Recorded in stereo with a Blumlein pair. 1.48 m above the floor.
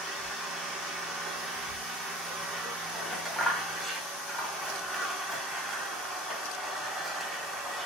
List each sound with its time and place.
0.0 s an engine running: 10° right, 1.3 m
2.9 s scissors: straight ahead, 2 m